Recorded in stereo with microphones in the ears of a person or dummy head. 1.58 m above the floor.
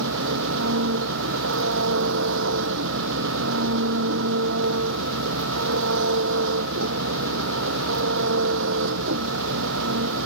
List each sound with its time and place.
0.0 s an engine running: 75° right (ahead or behind)